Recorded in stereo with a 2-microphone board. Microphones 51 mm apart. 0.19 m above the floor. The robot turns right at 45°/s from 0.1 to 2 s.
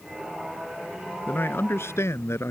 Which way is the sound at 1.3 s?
40° left.